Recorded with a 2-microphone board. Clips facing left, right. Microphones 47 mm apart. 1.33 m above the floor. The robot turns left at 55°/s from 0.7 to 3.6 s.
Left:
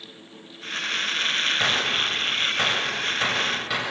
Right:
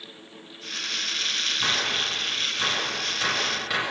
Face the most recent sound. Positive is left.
turn(degrees=0)  # may be behind; listen again after turning